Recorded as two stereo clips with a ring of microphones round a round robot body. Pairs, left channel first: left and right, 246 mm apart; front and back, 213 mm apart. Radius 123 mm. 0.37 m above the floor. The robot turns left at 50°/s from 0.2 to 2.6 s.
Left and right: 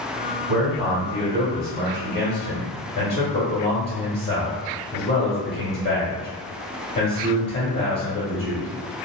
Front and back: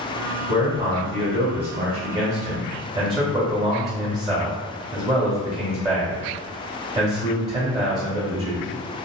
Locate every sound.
0.5 s a man speaking: 125° right, 1.2 m; by 8.7 s 130° left, 1.2 m